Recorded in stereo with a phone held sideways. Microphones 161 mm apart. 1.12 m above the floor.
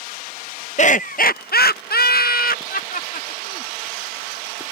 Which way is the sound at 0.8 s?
45° left (ahead or behind).